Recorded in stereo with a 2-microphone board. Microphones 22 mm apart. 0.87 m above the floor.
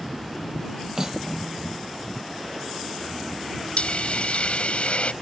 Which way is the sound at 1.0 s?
25° right (ahead or behind).